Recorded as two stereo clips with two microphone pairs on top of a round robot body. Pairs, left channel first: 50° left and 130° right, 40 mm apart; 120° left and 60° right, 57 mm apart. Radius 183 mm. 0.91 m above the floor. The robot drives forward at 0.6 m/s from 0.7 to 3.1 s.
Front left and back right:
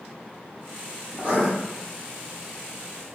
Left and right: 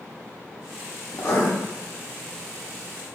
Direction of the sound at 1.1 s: 170° left.